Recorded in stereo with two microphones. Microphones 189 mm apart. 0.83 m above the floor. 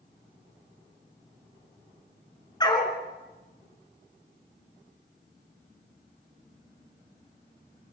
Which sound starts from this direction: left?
A dog barking, at 2.6 s.